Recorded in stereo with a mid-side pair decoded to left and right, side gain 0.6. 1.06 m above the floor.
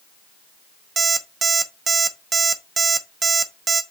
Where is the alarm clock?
30° right, 0.8 m.